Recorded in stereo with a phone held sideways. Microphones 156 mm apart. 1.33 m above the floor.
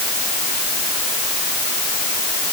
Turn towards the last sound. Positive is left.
No sound to turn to.